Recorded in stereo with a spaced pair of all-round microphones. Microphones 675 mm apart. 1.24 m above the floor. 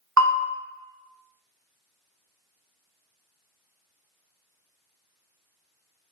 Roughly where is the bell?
Right.